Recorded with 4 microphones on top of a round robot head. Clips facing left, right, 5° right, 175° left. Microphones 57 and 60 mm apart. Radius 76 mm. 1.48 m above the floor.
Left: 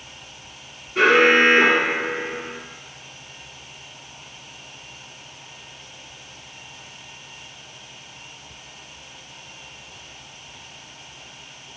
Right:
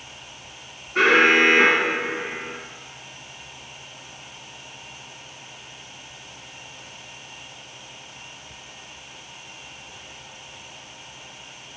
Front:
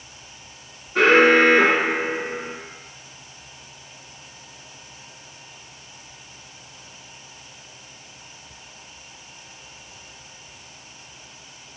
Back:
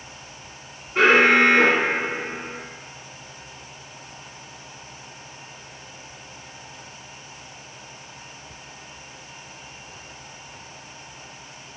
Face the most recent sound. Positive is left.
turn(degrees=-25)